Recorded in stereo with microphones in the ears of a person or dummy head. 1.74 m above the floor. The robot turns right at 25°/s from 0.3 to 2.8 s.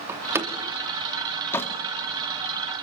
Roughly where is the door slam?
Centre.